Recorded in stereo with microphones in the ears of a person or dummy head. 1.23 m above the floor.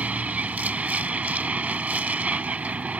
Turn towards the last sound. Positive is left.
turn(degrees=-10)  # may be behind; listen again after turning